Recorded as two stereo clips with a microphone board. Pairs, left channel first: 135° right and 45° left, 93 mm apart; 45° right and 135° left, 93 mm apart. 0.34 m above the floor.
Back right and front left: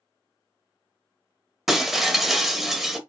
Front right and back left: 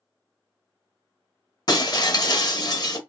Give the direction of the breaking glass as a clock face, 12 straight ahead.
1 o'clock.